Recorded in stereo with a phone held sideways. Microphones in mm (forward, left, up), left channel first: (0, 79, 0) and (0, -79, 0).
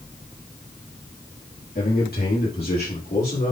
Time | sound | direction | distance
1.8 | a man speaking | 80° left | 2.5 m